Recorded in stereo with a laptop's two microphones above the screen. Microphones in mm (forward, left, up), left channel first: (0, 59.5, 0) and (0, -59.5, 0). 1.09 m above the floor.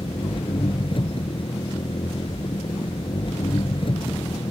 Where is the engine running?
45° left (ahead or behind).